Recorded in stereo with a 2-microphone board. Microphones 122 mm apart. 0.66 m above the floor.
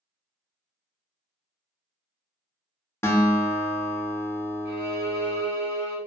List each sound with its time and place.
3.0 s a guitar: 20° left (ahead or behind), 0.5 m
4.7 s a violin: 15° right (ahead or behind), 1.7 m